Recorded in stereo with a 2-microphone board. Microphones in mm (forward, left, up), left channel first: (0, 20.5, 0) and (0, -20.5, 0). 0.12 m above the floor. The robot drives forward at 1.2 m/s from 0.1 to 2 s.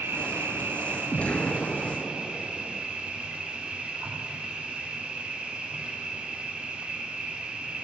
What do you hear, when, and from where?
0.0 s an insect: 75° right (ahead or behind), 1.1 m; by 7.8 s 30° right (ahead or behind), 2.5 m
1.1 s an explosion: 40° left (ahead or behind), 1.1 m; by 2.9 s 25° left (ahead or behind), 1.8 m